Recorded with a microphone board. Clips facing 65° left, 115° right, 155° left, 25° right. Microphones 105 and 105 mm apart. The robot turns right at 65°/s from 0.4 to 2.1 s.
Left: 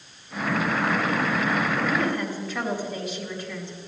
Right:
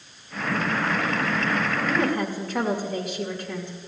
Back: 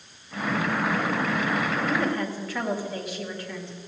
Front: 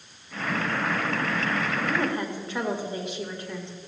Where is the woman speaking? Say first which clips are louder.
Right 1 dB, back 1 dB; 100° right, 2 m; by 3.8 s 85° right, 2 m.